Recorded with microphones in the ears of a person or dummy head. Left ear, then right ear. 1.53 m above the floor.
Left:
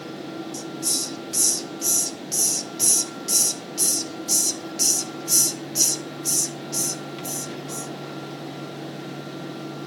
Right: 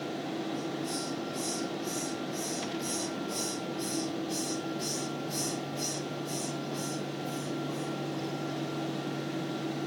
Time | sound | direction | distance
0.5 | a hiss | 85° left | 1.3 m